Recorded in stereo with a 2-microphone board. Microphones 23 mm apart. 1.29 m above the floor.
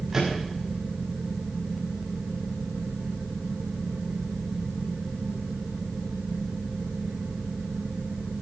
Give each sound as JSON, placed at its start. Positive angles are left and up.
{"t": 0.1, "sound": "a microwave", "side_deg": -15, "distance_m": 7.0}